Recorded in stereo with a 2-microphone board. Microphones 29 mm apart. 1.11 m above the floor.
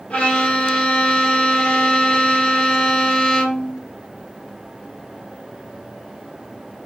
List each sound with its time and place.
0.1 s a violin: 40° left (ahead or behind), 1.6 m